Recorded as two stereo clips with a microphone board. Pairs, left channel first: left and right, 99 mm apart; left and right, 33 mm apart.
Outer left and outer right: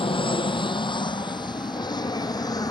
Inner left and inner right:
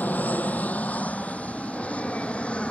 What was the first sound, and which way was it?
An aircraft, 55° left (ahead or behind).